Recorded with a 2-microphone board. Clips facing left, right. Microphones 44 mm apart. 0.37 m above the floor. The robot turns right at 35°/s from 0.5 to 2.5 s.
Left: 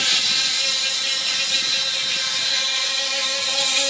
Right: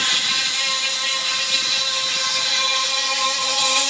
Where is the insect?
130° right, 1.6 m; by 3.9 s 60° right, 1.6 m.